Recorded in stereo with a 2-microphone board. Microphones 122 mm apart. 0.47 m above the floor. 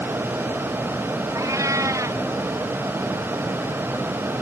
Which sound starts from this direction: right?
A cat meowing, at 1.4 s.